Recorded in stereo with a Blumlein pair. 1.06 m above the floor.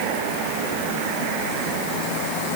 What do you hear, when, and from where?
Only background noise.